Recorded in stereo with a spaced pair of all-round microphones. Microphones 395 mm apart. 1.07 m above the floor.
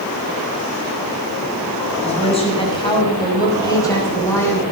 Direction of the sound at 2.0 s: 15° left (ahead or behind).